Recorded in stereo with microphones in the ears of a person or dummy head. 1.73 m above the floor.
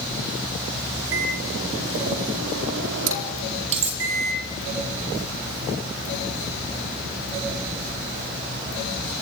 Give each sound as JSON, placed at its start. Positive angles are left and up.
{"t": 1.1, "sound": "a microwave", "side_deg": -70, "distance_m": 4.5}
{"t": 3.7, "sound": "cutlery clinking", "side_deg": -35, "distance_m": 2.5}